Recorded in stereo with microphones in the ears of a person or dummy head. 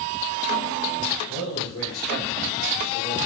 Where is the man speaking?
75° left (ahead or behind), 1.7 m; by 3.2 s 20° left (ahead or behind), 1.1 m.